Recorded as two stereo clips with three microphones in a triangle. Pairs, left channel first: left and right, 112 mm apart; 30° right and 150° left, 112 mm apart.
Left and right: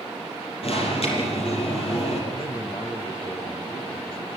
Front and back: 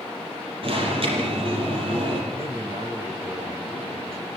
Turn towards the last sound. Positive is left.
turn(degrees=120)